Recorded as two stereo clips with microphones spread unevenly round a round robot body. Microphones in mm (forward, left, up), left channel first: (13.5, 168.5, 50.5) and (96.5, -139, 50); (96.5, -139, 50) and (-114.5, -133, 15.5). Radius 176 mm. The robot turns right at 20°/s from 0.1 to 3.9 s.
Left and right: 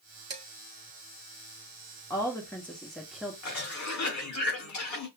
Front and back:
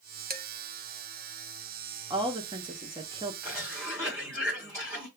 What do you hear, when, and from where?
0.3 s dishes clattering: 150° right, 1.0 m
2.1 s a woman speaking: 175° left, 0.8 m; by 3.3 s 160° right, 0.8 m
3.4 s a cough: 100° left, 1.8 m; by 5.1 s 110° left, 1.8 m